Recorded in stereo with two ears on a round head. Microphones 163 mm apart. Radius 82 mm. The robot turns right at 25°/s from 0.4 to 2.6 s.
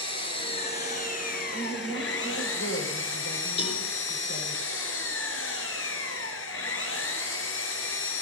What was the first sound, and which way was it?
An engine running, 30° left.